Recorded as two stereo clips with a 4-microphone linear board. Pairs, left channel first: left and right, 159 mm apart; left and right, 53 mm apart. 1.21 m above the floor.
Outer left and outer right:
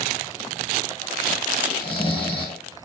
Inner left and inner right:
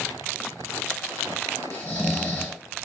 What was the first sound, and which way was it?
Snoring, 35° left (ahead or behind).